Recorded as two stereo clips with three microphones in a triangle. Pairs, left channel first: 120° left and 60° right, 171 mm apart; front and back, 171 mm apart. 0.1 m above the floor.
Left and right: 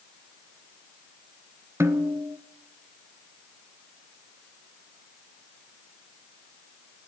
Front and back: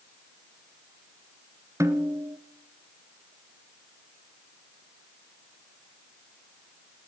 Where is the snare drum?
120° right, 1.2 m.